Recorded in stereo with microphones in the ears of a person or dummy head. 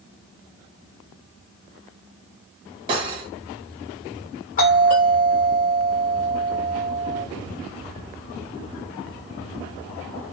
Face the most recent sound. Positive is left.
turn(degrees=40)  # may be behind; listen again after turning